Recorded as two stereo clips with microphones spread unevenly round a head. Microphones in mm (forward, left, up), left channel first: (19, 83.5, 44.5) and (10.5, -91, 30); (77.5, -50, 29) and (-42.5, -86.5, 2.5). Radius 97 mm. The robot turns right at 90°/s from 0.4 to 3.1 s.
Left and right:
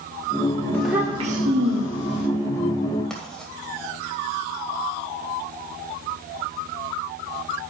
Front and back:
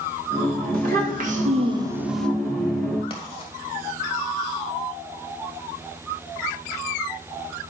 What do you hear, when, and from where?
0.7 s a child speaking: 165° left, 1.4 m; by 2.3 s 55° right, 1.4 m
3.1 s writing: 5° left, 2 m